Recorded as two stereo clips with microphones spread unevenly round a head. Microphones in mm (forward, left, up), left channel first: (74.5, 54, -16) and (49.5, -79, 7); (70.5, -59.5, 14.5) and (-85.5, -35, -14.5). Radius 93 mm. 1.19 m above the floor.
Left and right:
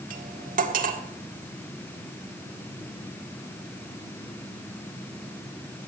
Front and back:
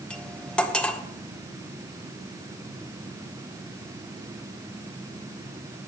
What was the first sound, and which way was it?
Cutlery clinking, 90° right.